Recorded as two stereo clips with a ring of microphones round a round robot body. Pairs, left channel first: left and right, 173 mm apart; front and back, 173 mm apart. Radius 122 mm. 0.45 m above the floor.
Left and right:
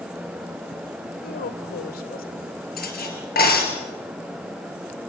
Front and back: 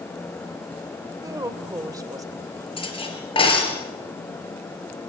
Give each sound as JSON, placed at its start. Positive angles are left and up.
{"t": 1.2, "sound": "a woman speaking", "azimuth_deg": 115, "distance_m": 1.7}
{"t": 2.8, "sound": "cutlery clinking", "azimuth_deg": 60, "distance_m": 5.0}